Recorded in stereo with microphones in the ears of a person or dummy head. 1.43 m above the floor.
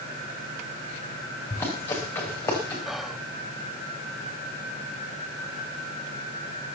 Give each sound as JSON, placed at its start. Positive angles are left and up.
{"t": 1.5, "sound": "running footsteps", "side_deg": 10, "distance_m": 7.5}
{"t": 2.9, "sound": "whispering", "side_deg": 0, "distance_m": 0.6}